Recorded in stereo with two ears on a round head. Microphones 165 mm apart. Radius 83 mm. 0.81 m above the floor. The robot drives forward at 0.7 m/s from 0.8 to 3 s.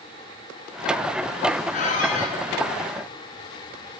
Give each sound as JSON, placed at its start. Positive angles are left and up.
{"t": 1.7, "sound": "a squeak", "side_deg": 40, "distance_m": 7.0}